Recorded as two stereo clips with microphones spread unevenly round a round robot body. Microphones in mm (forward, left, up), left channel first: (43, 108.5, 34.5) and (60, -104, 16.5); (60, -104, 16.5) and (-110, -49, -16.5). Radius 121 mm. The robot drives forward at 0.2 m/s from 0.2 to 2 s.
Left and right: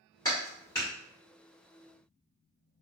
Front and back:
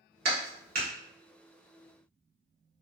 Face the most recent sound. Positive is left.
turn(degrees=175)